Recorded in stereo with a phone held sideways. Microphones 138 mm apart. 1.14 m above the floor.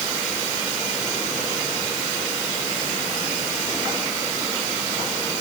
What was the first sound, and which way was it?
Only background noise.